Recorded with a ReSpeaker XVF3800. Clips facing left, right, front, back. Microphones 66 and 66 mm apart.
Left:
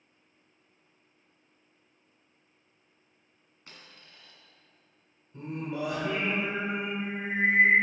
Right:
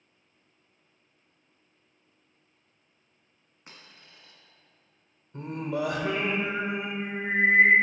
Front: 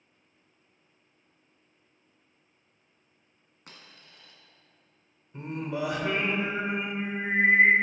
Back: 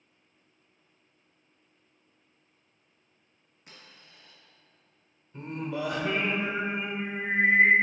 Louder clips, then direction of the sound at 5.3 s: Right 4 dB, front 1 dB; 75° right.